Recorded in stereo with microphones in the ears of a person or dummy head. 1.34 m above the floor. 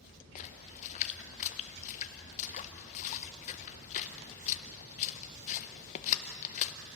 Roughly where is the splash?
Left.